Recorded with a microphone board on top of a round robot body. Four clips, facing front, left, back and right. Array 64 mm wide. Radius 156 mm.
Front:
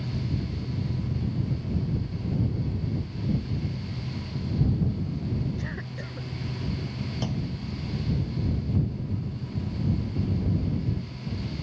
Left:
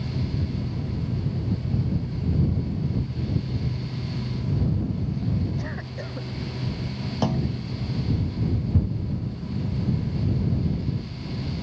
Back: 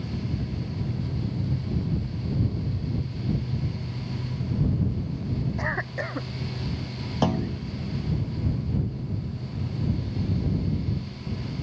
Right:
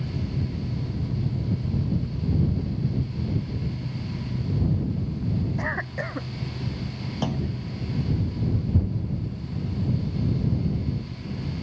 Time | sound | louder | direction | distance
5.6 | a cough | right 5 dB, back 7 dB | 140° right | ?
7.2 | a clunk | left 3 dB, back 10 dB | 165° left | ?